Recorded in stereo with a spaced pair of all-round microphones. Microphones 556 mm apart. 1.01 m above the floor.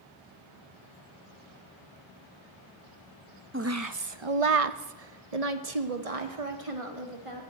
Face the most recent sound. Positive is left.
turn(degrees=-60)  # may be behind; listen again after turning